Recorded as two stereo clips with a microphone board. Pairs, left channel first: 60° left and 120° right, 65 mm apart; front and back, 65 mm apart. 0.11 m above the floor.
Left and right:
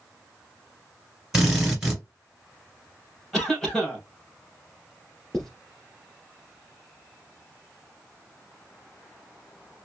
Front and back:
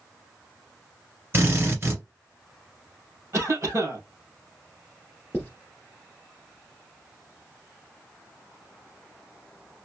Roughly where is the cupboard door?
I don't hear a cupboard door.